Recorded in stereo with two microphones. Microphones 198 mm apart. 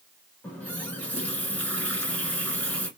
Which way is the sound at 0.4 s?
5° left (ahead or behind).